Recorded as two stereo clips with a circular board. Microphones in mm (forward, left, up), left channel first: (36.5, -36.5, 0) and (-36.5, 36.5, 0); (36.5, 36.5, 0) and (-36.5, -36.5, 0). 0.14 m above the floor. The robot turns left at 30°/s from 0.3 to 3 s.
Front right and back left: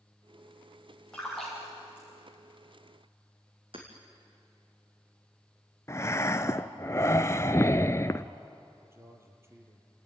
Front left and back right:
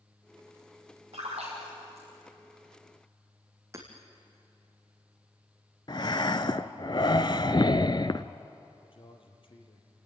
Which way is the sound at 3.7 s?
165° left.